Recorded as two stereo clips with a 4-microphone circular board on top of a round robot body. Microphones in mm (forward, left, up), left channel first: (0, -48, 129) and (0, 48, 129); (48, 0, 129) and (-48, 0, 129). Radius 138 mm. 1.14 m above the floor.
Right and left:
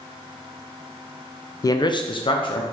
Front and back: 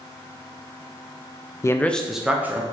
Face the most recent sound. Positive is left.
turn(degrees=-115)